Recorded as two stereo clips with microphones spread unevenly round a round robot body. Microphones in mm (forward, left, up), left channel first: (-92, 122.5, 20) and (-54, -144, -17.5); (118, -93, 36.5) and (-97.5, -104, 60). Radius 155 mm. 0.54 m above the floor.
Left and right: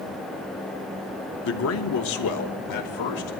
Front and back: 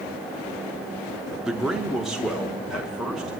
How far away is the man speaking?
About 0.7 m.